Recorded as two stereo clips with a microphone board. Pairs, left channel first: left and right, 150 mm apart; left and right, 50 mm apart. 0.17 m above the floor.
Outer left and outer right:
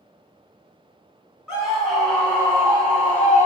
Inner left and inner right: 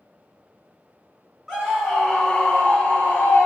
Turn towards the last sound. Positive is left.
turn(degrees=40)  # may be behind; listen again after turning